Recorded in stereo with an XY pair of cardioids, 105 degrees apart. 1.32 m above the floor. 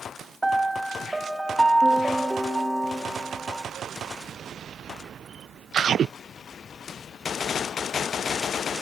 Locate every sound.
0.4 s a piano: 10° right, 1.8 m